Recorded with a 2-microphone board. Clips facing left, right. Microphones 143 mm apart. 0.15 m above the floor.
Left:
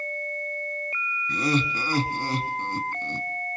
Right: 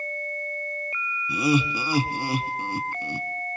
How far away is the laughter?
About 1.2 m.